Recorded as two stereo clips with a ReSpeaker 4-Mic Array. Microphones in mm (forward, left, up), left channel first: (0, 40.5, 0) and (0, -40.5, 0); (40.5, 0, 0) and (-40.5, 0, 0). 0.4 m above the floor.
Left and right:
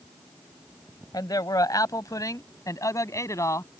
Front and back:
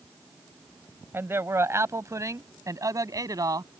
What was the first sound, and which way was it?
A man speaking, 120° left.